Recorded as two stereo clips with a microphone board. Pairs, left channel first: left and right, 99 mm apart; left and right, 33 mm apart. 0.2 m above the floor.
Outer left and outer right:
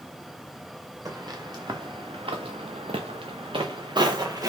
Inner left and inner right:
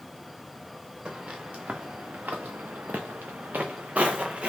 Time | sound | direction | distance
1.1 | footsteps | 35° right (ahead or behind) | 1.6 m